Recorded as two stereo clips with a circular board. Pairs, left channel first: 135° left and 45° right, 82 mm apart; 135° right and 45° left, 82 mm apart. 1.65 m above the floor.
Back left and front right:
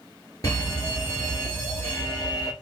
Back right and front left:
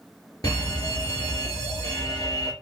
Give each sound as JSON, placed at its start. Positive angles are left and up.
{"t": 0.4, "sound": "a fire alarm", "azimuth_deg": -175, "distance_m": 2.5}